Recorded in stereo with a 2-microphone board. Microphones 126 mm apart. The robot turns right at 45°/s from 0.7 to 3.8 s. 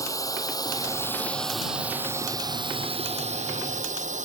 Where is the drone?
25° left (ahead or behind); by 4.3 s 70° right (ahead or behind).